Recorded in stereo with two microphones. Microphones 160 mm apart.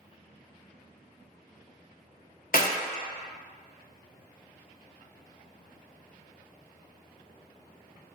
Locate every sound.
2.5 s a clap: 60° left (ahead or behind), 0.9 m